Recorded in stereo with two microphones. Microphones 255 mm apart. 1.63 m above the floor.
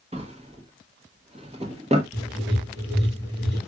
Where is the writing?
20° right (ahead or behind), 3.5 m.